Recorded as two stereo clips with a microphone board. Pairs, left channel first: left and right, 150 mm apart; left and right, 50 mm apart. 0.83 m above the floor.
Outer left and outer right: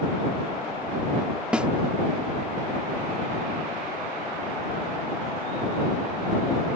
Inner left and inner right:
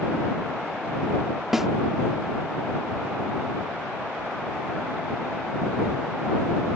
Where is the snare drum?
5° right (ahead or behind).